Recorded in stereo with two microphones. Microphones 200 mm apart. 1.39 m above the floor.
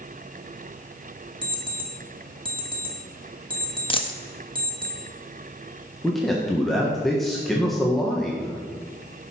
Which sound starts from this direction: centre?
A man speaking, at 6.0 s.